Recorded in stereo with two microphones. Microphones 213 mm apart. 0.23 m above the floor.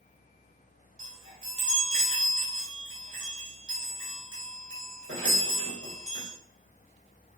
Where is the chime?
80° right, 3.5 m.